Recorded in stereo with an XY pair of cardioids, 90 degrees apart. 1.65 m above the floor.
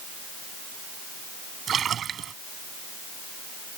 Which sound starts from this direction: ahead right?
A splash, at 1.7 s.